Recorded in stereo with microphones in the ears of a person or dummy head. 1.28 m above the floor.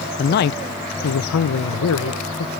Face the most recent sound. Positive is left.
turn(degrees=65)  # may be behind; listen again after turning